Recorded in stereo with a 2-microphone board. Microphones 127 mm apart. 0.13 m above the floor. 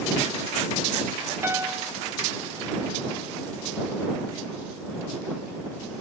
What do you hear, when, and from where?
1.4 s a piano: 20° right (ahead or behind)